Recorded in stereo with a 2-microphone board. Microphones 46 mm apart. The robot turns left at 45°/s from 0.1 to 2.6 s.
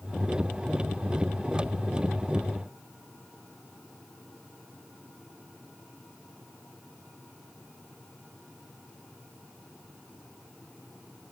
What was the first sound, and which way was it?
Only background noise.